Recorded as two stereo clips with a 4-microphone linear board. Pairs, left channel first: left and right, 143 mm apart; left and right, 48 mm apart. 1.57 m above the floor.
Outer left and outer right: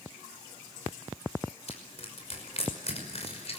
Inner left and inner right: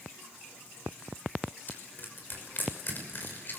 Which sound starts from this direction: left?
Crushing, at 1.7 s.